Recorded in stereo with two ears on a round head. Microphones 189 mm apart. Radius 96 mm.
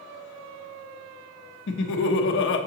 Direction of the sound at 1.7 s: 60° left (ahead or behind).